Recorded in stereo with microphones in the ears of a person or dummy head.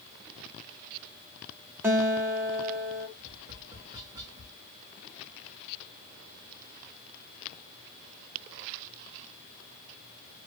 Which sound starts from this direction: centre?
A guitar, at 1.8 s.